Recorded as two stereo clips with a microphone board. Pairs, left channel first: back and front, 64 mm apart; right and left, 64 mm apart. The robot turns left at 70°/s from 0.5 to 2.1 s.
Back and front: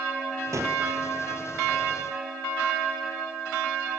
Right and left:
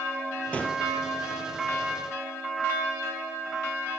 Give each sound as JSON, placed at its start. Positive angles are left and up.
{"t": 0.5, "sound": "a gunshot", "azimuth_deg": -20, "distance_m": 2.0}